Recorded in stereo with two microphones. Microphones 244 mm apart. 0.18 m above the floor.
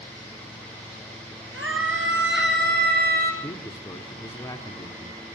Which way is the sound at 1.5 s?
60° right (ahead or behind).